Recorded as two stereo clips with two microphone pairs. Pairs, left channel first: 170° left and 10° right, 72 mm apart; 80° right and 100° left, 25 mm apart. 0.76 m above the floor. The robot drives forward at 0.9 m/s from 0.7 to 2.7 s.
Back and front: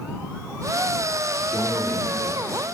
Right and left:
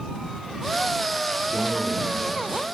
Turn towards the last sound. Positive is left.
turn(degrees=120)